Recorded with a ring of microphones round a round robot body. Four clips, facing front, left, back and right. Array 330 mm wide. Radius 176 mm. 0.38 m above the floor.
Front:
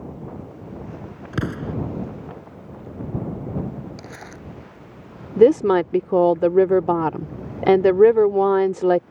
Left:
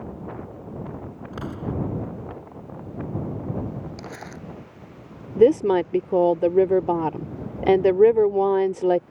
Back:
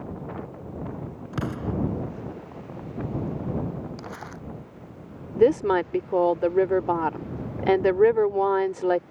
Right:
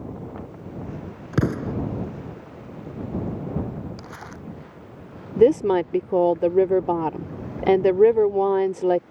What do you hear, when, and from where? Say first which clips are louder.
1.3 s an explosion: right 7 dB, front 3 dB; 75° right
4.0 s crumpling: left 2 dB, even; 45° left
5.4 s a woman speaking: even, front 6 dB; 5° left